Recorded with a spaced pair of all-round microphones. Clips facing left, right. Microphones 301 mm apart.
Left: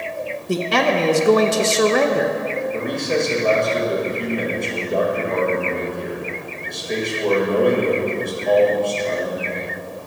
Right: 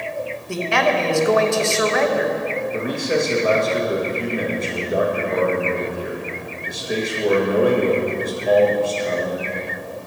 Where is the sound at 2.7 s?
5° right (ahead or behind), 1.8 m.